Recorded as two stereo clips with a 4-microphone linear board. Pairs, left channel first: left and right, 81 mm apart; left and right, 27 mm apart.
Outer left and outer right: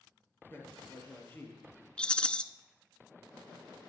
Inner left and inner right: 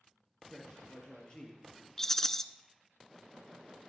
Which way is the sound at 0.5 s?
30° left (ahead or behind).